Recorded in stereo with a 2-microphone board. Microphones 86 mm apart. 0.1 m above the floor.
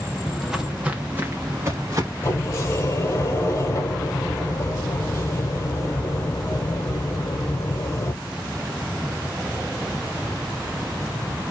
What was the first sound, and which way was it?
Footsteps, 5° left (ahead or behind).